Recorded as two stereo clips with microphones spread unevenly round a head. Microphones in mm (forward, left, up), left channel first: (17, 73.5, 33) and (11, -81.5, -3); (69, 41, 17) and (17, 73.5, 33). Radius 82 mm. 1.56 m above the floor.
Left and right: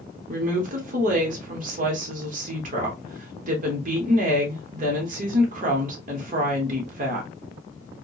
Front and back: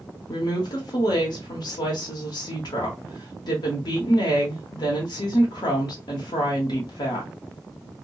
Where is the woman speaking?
50° right, 0.8 m.